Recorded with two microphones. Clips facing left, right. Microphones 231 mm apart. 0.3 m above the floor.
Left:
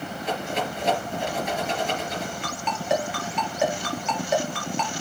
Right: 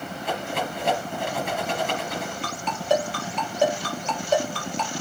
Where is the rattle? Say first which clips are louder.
Left 1 dB; 55° right (ahead or behind), 4.5 m.